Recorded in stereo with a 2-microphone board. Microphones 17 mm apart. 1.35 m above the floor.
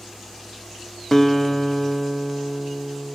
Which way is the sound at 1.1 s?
20° left (ahead or behind).